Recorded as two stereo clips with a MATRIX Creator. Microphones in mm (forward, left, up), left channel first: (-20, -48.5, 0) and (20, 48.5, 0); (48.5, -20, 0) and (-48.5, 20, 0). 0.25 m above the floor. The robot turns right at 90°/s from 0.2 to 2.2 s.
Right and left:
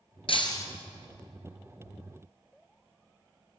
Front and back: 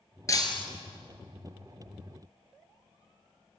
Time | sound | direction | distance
0.3 | breaking glass | 85° right | 3 m